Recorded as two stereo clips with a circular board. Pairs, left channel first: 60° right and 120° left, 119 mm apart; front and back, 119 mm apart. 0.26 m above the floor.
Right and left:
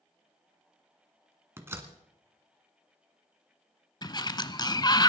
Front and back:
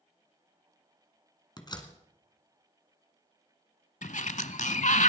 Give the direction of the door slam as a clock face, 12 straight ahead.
10 o'clock.